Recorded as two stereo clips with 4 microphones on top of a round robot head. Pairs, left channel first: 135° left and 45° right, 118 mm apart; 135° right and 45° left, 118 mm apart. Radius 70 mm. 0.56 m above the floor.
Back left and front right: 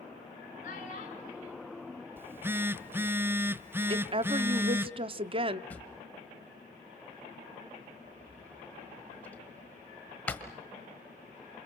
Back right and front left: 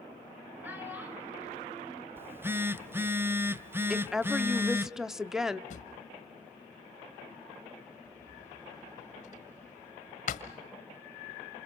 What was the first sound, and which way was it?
A child speaking, 120° left.